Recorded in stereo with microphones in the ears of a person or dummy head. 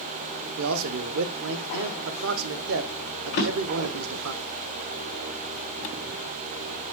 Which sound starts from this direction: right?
A man speaking, at 0.6 s.